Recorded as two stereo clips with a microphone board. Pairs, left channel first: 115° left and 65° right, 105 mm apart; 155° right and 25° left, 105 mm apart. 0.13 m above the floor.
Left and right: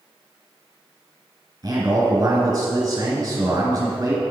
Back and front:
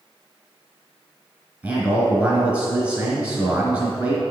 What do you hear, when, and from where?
1.6 s a man speaking: 45° right, 2 m